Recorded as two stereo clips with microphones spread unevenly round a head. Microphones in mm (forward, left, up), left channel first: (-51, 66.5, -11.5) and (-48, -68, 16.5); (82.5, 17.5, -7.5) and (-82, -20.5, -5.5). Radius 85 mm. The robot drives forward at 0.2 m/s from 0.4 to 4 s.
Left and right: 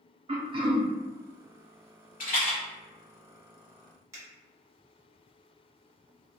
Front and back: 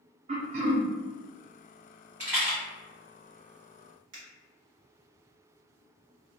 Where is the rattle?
115° left, 1.2 m; by 2.6 s 120° left, 1.2 m.